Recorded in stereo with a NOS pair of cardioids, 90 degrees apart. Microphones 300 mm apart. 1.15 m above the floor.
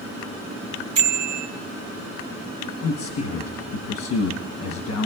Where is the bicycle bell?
65° right, 2 m.